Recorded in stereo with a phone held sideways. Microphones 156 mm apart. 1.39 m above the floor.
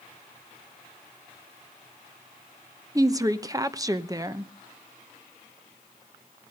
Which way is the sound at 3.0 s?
25° right (ahead or behind).